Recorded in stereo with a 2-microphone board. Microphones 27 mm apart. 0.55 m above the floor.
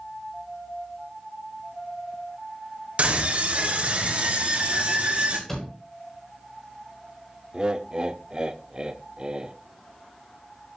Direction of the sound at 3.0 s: 55° right (ahead or behind).